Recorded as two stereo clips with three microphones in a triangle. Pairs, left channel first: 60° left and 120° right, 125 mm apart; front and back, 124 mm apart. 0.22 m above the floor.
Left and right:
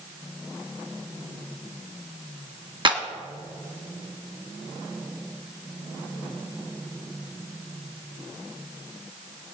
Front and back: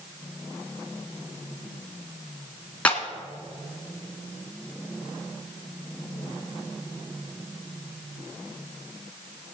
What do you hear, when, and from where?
2.9 s a clap: 80° right, 1.5 m